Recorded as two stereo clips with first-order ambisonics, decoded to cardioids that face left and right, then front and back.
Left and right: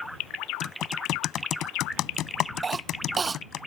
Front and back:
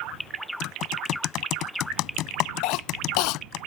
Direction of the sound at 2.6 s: 20° right.